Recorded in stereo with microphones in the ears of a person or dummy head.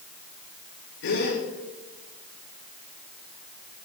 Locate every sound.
1.0 s a gasp: 65° left (ahead or behind), 7.5 m